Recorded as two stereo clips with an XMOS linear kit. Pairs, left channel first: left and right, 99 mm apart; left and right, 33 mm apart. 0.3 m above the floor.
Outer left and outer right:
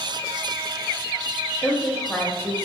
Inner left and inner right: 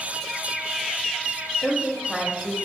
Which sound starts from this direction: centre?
A woman speaking, at 1.6 s.